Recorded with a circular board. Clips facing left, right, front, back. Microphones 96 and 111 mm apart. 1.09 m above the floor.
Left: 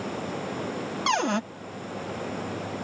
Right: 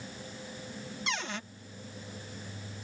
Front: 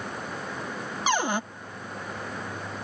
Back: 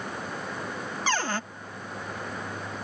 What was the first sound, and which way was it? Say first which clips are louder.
Running water: left 13 dB, even; 90° left.